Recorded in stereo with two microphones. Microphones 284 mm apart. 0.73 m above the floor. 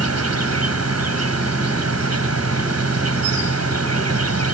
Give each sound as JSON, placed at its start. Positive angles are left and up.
{"t": 0.0, "sound": "an insect", "side_deg": -60}